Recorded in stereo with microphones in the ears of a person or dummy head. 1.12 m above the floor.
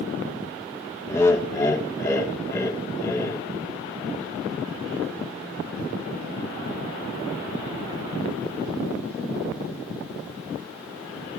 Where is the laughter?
15° left (ahead or behind), 0.9 m.